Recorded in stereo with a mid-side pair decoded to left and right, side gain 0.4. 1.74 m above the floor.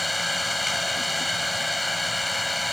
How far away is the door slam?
No door slam in this recording.